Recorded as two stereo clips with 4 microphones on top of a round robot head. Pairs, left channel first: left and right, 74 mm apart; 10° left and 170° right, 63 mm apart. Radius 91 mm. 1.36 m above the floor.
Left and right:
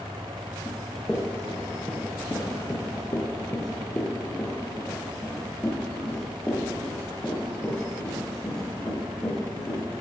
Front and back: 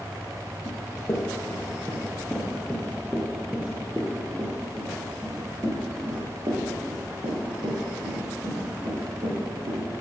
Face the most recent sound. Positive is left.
turn(degrees=165)